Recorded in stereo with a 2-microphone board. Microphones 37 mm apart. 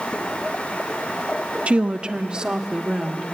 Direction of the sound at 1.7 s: 40° right (ahead or behind).